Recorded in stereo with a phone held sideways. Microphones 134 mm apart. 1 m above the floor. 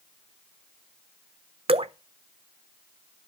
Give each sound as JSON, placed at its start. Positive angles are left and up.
{"t": 1.7, "sound": "dripping", "side_deg": -45, "distance_m": 0.6}